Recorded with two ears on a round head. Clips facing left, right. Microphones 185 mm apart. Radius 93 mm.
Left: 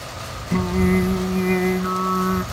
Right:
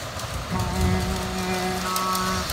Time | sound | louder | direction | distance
0.5 | singing | left 8 dB | 40° left (ahead or behind) | ?